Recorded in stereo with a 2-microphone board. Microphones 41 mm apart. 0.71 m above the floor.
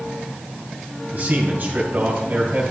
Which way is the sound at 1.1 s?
45° right (ahead or behind).